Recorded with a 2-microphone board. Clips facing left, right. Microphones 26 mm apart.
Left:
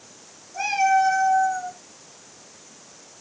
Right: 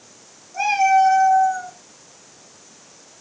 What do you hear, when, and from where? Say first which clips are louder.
0.5 s a cat meowing: right 4 dB; 25° right (ahead or behind), 2.5 m